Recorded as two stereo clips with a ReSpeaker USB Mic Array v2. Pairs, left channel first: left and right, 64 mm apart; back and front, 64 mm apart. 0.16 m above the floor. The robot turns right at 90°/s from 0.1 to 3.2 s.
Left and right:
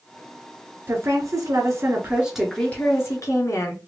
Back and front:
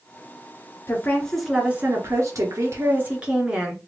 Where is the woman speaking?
140° right, 1.8 m; by 3.8 s 70° left, 1.8 m.